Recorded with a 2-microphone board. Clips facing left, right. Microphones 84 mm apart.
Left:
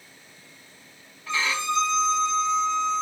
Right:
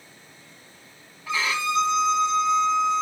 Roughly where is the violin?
Centre.